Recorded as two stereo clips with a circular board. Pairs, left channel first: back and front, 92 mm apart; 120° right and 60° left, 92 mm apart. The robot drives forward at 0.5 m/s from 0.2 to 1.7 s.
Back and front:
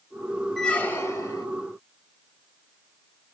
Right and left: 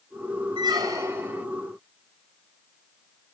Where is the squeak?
95° left, 0.5 m; by 1.5 s 135° left, 0.7 m.